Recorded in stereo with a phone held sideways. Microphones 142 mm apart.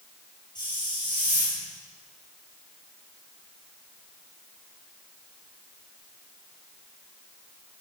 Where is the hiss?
30° left (ahead or behind), 8.5 m.